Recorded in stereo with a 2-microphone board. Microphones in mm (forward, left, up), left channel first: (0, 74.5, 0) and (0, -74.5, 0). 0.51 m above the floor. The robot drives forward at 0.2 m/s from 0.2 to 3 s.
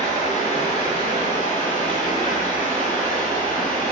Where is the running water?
50° left (ahead or behind), 1.3 m; by 3.9 s 70° left (ahead or behind), 1.1 m.